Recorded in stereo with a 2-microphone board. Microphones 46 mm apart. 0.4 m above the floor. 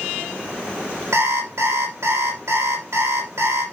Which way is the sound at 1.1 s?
85° right.